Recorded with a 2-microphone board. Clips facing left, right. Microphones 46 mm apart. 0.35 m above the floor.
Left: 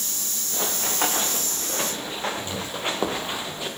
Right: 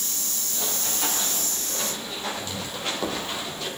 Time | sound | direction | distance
0.5 | running footsteps | 55° left (ahead or behind) | 2.5 m